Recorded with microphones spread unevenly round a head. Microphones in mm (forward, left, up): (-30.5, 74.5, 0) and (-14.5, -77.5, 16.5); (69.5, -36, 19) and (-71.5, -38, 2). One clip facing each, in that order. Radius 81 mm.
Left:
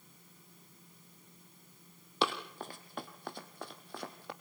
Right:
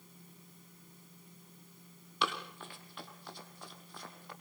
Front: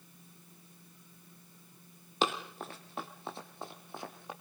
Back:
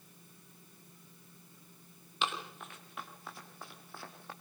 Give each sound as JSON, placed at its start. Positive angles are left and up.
{"t": 2.2, "sound": "running footsteps", "azimuth_deg": 35, "distance_m": 2.0}